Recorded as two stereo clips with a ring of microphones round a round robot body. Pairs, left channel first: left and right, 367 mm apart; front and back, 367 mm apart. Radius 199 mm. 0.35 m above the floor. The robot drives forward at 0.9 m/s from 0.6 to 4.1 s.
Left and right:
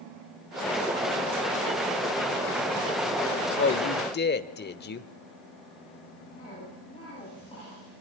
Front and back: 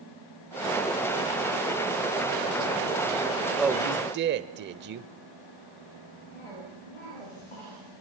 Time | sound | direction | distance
3.6 | a man speaking | 90° left | 0.9 m
6.3 | a cough | 10° left | 9 m